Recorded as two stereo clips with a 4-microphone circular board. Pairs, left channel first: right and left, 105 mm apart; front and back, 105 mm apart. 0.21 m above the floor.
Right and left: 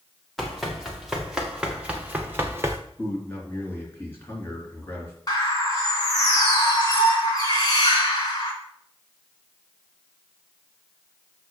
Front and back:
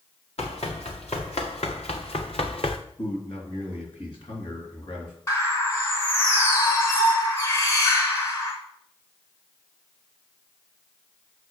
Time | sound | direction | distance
0.4 | running footsteps | straight ahead | 3 m
3.0 | a man speaking | 25° right | 3.5 m
5.3 | a bird | 50° right | 2.5 m